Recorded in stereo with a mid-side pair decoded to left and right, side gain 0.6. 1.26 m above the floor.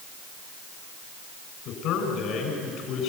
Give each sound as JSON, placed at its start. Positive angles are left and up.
{"t": 1.6, "sound": "a man speaking", "azimuth_deg": 65, "distance_m": 7.5}